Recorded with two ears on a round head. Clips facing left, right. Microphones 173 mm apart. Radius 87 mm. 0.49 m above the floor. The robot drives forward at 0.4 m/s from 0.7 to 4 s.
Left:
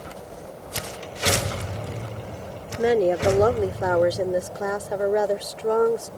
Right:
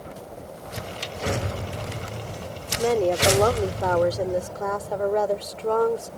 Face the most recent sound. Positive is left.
turn(degrees=15)  # may be behind; listen again after turning